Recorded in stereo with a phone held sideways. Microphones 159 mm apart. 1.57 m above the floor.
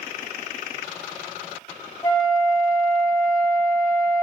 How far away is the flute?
About 1.1 m.